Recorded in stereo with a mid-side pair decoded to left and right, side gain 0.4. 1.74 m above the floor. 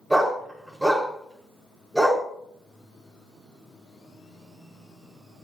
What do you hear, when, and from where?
0.1 s a dog barking: straight ahead, 5 m